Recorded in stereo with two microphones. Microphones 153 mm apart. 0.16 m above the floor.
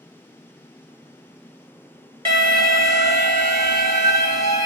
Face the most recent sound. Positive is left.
turn(degrees=-35)  # may be behind; listen again after turning